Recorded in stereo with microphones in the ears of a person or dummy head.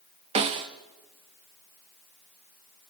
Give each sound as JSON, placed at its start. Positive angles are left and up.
{"t": 0.3, "sound": "a snare drum", "side_deg": -35, "distance_m": 0.7}